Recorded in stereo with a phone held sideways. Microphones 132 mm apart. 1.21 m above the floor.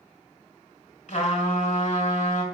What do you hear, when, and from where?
1.1 s a trumpet: 75° left (ahead or behind), 3 m